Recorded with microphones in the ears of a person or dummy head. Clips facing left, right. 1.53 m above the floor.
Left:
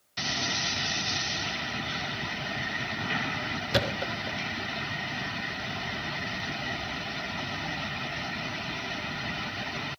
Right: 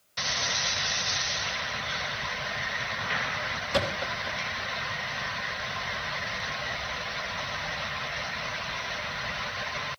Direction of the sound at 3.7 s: 25° left (ahead or behind).